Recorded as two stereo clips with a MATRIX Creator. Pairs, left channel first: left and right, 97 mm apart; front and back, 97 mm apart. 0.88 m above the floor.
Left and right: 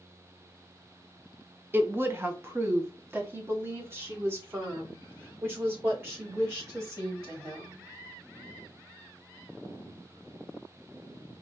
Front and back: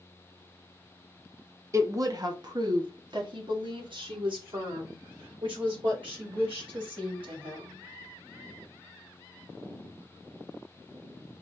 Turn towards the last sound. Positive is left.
turn(degrees=-155)